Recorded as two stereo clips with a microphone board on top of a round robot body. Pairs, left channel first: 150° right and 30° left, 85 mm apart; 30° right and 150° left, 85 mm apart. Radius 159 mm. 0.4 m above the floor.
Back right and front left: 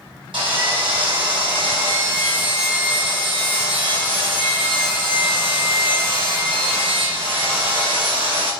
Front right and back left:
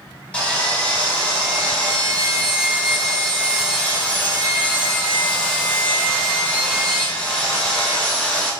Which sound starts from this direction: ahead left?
Sawing, at 0.3 s.